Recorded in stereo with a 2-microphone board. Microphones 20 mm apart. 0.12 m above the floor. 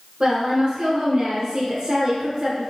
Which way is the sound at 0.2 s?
30° right (ahead or behind).